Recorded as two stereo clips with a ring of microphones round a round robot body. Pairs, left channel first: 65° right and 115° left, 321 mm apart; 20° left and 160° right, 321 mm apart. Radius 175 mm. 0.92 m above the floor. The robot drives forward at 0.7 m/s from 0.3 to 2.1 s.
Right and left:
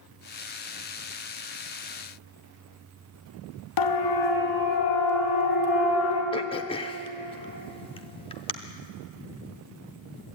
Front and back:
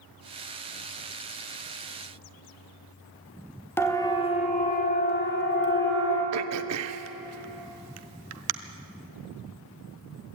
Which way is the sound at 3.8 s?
60° right.